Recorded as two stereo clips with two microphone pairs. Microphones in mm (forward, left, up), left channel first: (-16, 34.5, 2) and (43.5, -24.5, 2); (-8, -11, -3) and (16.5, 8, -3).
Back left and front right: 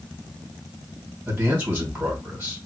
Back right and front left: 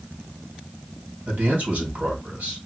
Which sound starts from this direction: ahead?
A man speaking, at 1.3 s.